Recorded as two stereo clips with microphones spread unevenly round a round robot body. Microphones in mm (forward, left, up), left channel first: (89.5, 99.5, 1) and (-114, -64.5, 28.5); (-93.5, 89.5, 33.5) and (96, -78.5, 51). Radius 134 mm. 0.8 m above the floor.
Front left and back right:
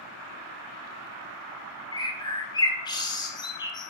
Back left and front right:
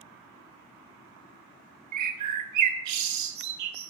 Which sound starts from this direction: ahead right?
A bird, at 1.9 s.